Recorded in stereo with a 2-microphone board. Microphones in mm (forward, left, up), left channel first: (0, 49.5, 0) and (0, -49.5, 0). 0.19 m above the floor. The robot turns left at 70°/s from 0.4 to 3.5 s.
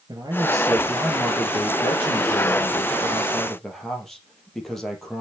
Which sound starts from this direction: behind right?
A man speaking, at 0.1 s.